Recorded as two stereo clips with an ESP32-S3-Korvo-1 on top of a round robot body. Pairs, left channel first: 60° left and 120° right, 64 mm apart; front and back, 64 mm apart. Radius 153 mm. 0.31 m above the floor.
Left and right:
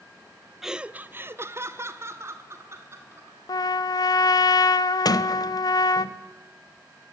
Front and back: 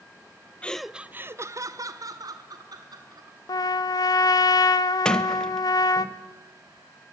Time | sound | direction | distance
0.6 | laughter | 45° right | 0.9 m
3.5 | a trumpet | 30° left | 0.7 m
5.0 | a sliding door | 80° left | 1.2 m